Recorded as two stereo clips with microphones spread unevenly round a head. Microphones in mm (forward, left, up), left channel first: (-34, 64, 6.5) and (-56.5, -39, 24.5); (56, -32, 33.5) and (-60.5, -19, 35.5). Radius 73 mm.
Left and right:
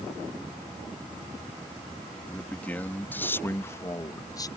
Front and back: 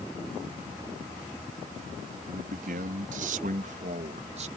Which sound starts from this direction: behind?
A man speaking, at 2.3 s.